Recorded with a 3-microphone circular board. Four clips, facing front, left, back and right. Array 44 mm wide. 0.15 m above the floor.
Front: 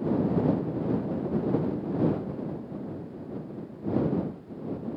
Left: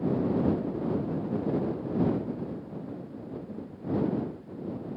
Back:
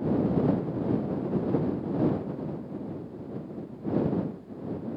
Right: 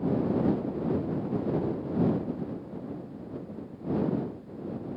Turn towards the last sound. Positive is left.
No sound to turn to.